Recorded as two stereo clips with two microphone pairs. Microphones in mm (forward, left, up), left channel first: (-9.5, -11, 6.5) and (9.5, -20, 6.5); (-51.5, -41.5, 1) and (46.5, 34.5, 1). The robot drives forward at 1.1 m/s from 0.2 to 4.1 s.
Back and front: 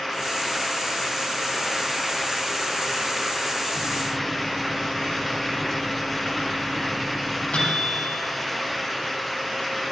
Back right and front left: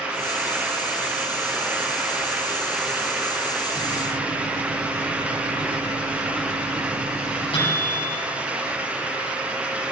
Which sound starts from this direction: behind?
A microwave, at 3.7 s.